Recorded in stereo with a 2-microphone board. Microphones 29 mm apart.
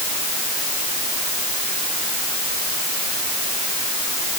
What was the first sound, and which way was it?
Only background noise.